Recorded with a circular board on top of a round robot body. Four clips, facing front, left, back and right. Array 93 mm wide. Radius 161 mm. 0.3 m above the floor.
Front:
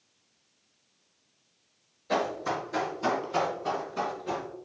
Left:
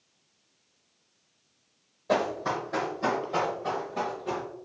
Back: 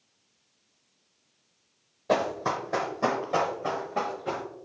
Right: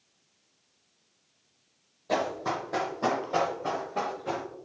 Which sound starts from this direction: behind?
Running footsteps, at 2.1 s.